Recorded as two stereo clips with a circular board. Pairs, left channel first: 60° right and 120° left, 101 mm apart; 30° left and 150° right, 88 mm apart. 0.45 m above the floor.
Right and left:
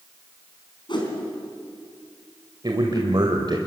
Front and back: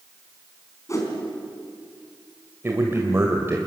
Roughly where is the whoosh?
Ahead.